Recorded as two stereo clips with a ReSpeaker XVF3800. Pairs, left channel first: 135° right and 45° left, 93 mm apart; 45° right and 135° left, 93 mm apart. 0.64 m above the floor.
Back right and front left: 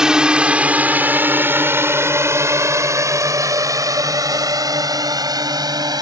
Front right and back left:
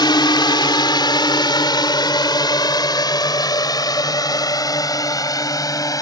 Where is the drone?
35° right; by 6.0 s 5° left.